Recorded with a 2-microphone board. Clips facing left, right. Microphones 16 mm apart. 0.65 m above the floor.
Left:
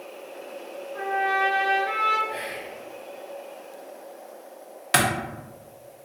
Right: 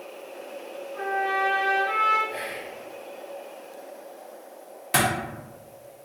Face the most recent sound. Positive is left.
turn(degrees=40)  # may be behind; listen again after turning